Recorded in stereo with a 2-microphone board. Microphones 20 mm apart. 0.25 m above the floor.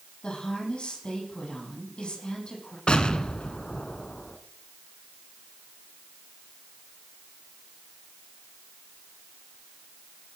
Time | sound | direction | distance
0.2 | a woman speaking | 50° left (ahead or behind) | 9 m
2.9 | an explosion | 50° left (ahead or behind) | 1.2 m